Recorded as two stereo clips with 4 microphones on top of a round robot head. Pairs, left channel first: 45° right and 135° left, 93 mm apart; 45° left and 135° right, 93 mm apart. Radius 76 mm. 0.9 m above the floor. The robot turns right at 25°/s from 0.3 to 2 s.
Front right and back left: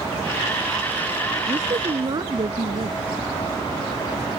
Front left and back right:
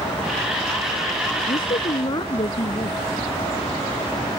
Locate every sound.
1.5 s a woman speaking: 75° left; by 3.0 s 85° left